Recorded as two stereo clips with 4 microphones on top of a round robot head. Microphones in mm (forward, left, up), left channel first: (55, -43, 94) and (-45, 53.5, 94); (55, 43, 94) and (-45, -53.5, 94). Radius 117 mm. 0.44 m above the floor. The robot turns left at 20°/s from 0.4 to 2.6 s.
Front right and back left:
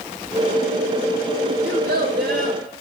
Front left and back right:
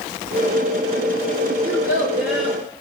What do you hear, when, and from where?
1.6 s a child speaking: 155° left, 6 m; by 2.6 s 135° left, 6 m